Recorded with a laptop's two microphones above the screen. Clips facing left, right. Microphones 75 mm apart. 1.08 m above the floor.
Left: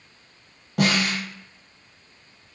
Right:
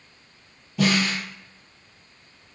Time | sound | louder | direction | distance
0.8 | a snare drum | even | 65° left (ahead or behind) | 1.0 m